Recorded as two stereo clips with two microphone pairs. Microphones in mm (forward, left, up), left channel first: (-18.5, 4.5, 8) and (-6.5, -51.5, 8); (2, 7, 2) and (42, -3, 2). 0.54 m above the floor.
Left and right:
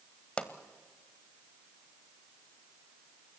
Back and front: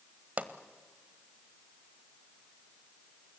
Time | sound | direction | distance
0.4 | a pop | 30° left | 1.3 m